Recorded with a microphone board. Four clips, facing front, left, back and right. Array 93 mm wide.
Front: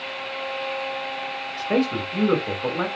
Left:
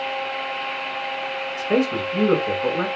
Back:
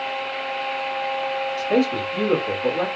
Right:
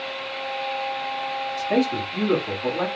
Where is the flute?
I don't hear a flute.